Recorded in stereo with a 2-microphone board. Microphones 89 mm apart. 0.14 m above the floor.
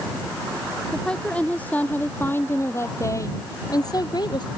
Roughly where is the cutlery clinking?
I don't hear cutlery clinking.